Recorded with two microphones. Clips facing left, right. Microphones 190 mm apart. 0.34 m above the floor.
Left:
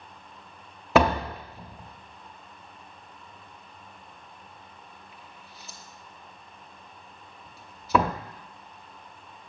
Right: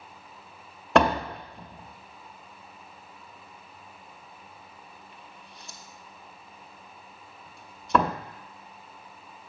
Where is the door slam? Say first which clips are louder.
Even; 5° left (ahead or behind), 0.6 m.